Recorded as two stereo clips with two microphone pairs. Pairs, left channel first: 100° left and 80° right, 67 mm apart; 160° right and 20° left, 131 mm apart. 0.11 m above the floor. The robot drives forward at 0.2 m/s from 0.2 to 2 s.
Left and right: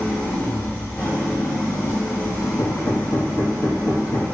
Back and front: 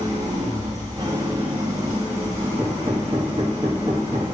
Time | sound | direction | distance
0.0 | an engine running | 50° left | 1.7 m
2.6 | hammering | 85° left | 0.9 m